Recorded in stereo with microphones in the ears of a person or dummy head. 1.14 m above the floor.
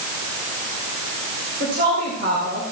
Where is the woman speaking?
55° right (ahead or behind), 4 m.